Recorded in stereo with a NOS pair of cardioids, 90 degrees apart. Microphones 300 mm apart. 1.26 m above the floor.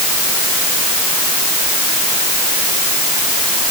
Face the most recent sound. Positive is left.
No sound to turn to.